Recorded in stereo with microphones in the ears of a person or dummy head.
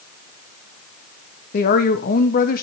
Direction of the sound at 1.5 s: 45° left (ahead or behind).